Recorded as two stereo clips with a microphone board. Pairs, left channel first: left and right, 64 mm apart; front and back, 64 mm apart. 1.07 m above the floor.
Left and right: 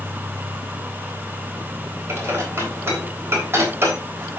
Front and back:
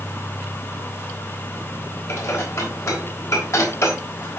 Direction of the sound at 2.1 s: 40° right.